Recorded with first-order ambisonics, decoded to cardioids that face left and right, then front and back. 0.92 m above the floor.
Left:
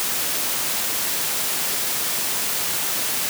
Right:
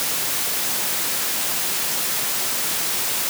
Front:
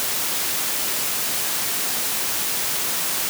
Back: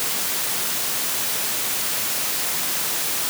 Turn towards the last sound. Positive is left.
No sound to turn to.